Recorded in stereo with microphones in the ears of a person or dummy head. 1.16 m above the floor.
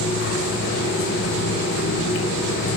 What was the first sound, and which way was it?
A fan, 65° left (ahead or behind).